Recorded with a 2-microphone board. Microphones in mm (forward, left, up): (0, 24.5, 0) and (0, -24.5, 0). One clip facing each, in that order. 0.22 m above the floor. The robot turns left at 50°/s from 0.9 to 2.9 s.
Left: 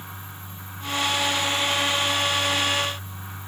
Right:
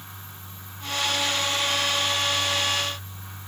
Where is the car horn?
I don't hear a car horn.